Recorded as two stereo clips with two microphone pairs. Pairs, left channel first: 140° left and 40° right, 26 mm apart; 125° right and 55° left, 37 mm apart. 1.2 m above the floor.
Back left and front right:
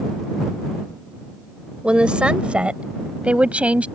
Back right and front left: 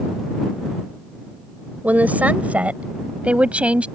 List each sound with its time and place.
1.8 s a woman speaking: 10° left; by 3.9 s straight ahead